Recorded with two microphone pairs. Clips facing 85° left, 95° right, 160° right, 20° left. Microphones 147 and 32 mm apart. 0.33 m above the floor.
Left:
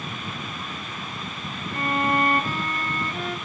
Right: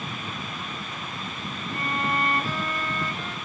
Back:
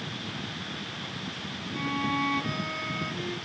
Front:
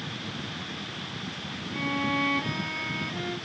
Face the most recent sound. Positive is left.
turn(degrees=70)